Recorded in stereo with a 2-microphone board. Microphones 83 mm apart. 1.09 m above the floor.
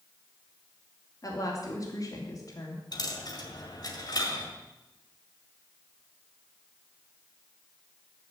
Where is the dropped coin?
55° left (ahead or behind), 2.0 m.